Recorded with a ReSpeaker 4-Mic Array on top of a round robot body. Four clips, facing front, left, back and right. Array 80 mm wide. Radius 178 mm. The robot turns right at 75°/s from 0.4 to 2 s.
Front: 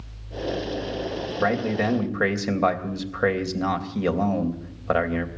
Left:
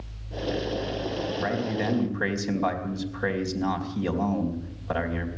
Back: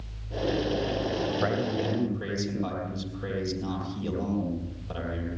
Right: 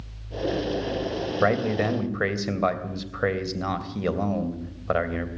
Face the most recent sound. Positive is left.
turn(degrees=-35)